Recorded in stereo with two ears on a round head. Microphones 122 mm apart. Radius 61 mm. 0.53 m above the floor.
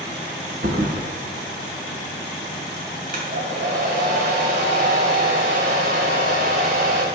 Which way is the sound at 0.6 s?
75° right (ahead or behind).